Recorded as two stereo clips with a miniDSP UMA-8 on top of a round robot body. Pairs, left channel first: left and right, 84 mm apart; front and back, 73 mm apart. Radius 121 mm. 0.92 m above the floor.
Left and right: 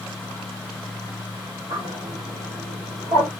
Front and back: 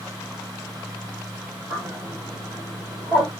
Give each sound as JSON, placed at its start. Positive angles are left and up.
{"t": 1.7, "sound": "a bird", "azimuth_deg": -110, "distance_m": 3.5}